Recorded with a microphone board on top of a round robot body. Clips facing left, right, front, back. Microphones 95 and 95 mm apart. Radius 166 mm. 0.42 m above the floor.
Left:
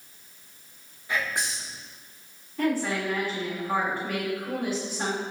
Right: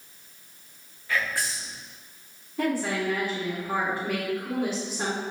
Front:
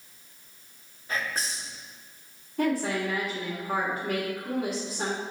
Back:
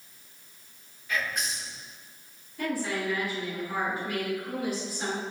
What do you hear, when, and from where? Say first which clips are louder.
1.1 s whispering: right 1 dB, even; 30° left, 1.0 m
2.6 s a woman speaking: even, front 4 dB; 20° right, 1.6 m